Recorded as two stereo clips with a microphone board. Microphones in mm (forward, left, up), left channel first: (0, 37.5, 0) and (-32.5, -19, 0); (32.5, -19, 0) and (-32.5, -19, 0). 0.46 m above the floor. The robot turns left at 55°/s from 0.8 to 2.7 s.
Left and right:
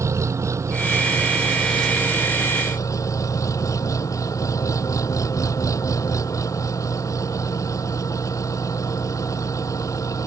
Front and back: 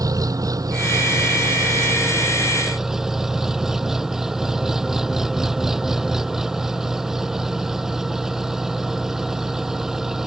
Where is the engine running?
160° right; by 10.3 s 95° left.